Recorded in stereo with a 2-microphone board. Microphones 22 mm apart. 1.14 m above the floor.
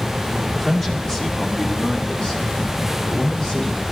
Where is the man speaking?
20° left (ahead or behind), 2.5 m; by 3.8 s 60° left (ahead or behind), 6.5 m.